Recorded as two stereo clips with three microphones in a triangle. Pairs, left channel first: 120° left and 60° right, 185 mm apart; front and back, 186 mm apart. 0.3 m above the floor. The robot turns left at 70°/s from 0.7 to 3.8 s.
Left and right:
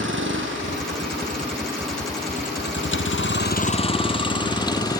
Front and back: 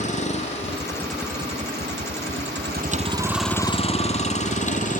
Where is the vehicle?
55° right; by 5.0 s 50° left.